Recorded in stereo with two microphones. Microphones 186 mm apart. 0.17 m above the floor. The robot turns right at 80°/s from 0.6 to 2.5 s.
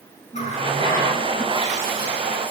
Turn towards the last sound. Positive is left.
turn(degrees=-70)